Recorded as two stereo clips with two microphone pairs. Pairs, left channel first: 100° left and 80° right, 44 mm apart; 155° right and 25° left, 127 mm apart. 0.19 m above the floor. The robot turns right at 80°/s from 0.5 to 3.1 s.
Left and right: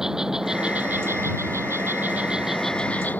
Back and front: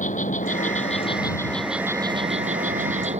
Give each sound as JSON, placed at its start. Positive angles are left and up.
{"t": 0.0, "sound": "an insect", "azimuth_deg": -155}